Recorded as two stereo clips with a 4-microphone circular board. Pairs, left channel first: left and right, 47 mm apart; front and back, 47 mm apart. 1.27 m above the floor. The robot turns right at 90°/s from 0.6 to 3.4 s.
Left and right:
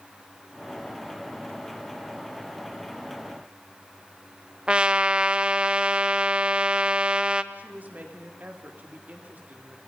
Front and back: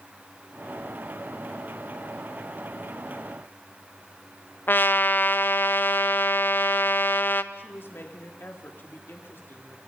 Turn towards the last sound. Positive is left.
turn(degrees=-40)